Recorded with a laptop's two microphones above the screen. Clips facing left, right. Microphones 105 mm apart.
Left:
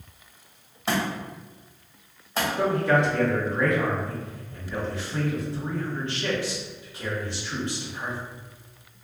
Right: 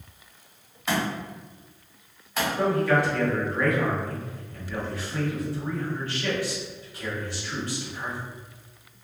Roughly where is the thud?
Left.